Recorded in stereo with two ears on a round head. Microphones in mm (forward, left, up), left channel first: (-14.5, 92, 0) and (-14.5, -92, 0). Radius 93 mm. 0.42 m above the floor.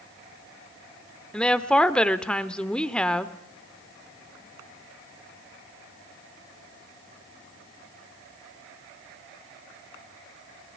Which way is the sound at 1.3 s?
5° left (ahead or behind).